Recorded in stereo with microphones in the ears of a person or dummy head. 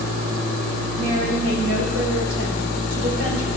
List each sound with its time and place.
1.0 s a woman speaking: 85° right, 3 m